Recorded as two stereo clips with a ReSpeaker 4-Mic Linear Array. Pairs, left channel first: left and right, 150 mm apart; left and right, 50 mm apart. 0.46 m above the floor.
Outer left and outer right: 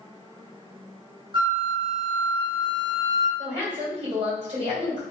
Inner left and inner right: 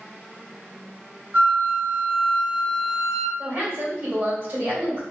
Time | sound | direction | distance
1.3 | a flute | 35° right (ahead or behind) | 0.8 m
3.4 | a woman speaking | 40° right (ahead or behind) | 1.8 m